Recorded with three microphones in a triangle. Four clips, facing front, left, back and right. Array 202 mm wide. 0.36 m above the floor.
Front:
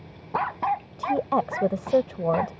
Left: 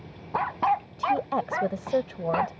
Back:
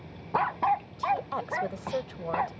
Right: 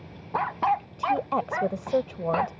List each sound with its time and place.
1.0 s a woman speaking: 5° left